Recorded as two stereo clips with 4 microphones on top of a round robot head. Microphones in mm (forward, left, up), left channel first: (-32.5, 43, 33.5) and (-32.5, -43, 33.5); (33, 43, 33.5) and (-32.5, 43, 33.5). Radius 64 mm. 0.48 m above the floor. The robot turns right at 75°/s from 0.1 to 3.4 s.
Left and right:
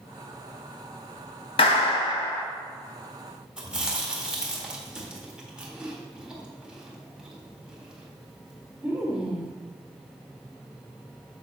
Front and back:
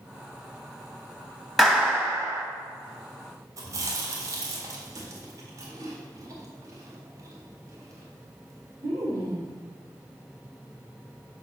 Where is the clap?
90° left, 2 m; by 2.4 s 155° left, 2 m.